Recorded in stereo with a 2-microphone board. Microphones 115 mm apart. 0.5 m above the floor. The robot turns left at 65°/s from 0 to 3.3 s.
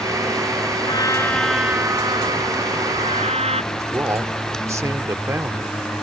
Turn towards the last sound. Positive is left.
turn(degrees=-25)  # may be behind; listen again after turning